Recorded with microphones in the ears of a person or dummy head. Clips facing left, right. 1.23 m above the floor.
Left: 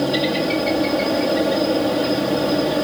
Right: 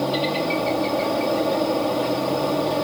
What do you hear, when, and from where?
0.0 s a helicopter: 25° left (ahead or behind)